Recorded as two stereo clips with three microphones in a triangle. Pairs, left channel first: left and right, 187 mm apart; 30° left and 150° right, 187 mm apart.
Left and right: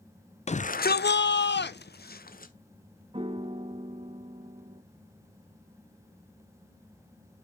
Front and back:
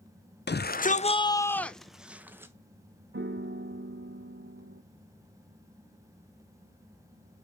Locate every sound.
0.5 s a shout: 40° left, 0.5 m; by 2.5 s 135° left, 1.0 m
3.1 s a piano: 150° right, 0.6 m